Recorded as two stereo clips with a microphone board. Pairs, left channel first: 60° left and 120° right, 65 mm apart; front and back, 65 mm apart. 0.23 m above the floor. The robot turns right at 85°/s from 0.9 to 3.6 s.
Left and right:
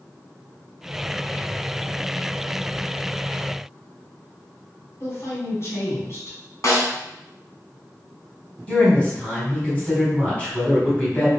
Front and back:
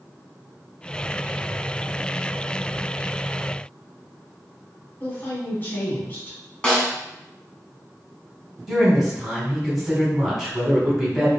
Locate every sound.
5.0 s a woman speaking: 45° left, 1.5 m
6.6 s a snare drum: 70° left, 0.9 m
8.7 s a woman speaking: 100° left, 1.3 m